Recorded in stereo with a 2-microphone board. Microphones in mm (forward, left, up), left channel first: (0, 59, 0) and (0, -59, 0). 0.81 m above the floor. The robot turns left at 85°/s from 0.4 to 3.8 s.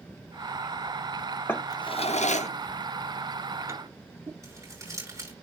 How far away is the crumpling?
About 8 m.